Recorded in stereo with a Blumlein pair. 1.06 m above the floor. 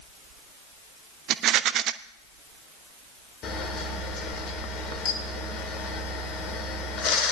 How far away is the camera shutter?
About 1.5 m.